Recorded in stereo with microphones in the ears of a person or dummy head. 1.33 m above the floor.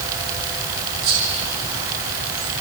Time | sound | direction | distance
1.0 | whispering | 70° right (ahead or behind) | 1.5 m